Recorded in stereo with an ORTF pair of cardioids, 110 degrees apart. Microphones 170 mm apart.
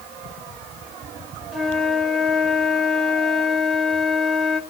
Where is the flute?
Straight ahead, 3.5 m.